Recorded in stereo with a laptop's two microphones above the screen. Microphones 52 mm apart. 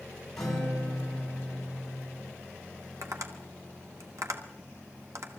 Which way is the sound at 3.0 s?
80° right.